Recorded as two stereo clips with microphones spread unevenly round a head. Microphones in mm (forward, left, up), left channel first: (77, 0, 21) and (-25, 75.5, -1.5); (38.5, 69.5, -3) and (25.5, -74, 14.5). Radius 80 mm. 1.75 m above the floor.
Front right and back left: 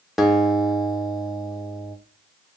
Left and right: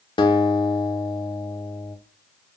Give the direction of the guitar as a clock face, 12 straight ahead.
11 o'clock.